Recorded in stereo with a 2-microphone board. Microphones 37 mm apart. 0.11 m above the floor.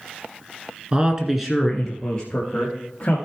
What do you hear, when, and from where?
0.9 s a man speaking: 25° right (ahead or behind), 1.3 m; by 3.2 s 25° left (ahead or behind), 3.5 m